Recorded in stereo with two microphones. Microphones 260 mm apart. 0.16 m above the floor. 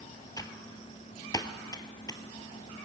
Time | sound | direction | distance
0.4 | typing on a keyboard | 15° left (ahead or behind) | 0.6 m